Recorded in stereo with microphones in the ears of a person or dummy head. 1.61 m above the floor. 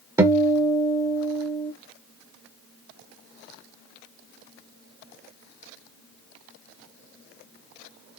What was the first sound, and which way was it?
A guitar, 20° right (ahead or behind).